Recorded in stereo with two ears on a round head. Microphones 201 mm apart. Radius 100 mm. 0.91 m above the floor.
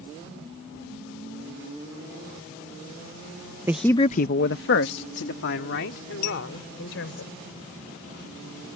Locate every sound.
3.7 s a man speaking: 10° right (ahead or behind); by 7.2 s 60° left (ahead or behind)
6.2 s a clink: 90° left